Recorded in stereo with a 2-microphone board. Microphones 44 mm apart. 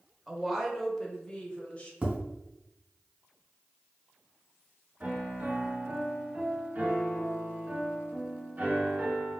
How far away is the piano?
About 1.3 m.